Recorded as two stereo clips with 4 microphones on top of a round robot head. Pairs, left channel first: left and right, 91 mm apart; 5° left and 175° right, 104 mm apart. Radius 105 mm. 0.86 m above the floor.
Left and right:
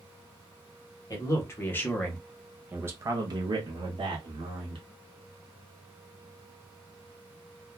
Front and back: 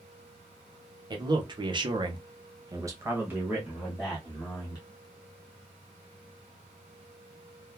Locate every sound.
1.1 s a man speaking: 140° left, 1.1 m; by 4.8 s 75° right, 1.3 m